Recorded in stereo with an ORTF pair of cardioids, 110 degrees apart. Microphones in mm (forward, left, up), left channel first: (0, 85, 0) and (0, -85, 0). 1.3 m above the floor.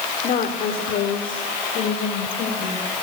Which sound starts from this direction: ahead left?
A woman speaking, at 0.2 s.